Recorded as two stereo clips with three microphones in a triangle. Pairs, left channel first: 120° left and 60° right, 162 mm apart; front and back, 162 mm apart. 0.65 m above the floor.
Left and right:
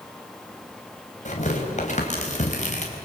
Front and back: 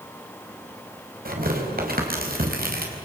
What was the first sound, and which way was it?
Tearing paper, 160° left.